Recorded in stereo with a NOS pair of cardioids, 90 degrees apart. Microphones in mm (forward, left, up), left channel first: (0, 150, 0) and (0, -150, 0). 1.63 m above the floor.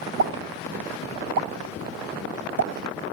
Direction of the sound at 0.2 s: 70° right.